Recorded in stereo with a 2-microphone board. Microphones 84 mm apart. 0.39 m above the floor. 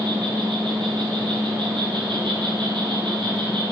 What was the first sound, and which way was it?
An insect, 75° right (ahead or behind).